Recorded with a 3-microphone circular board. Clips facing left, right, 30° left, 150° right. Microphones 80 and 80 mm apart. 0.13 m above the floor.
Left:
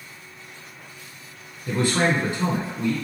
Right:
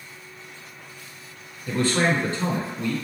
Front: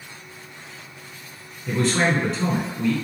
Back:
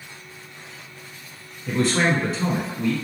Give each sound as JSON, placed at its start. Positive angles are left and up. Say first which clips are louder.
{"t": 1.7, "sound": "a man speaking", "louder": "even, even", "azimuth_deg": 120, "distance_m": 1.1}